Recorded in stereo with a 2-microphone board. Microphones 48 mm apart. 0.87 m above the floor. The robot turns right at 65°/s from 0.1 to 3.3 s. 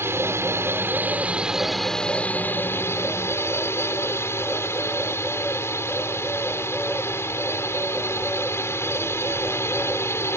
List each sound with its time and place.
0.0 s a drone: 110° right; by 10.4 s 100° left